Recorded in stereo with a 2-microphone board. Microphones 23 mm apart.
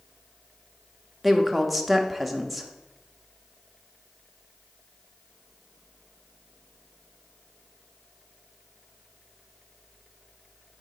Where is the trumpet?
No trumpet in this recording.